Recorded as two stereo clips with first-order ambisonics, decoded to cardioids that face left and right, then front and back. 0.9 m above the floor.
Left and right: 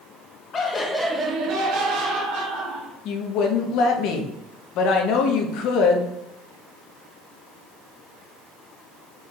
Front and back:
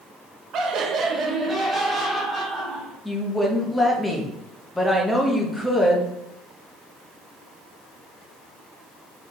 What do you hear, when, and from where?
0.5 s laughter: 145° left, 0.8 m; by 3.0 s 80° right, 1.7 m
3.0 s a woman speaking: 80° left, 0.7 m